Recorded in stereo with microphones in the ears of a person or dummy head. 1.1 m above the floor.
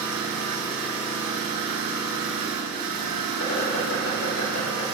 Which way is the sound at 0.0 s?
55° right (ahead or behind).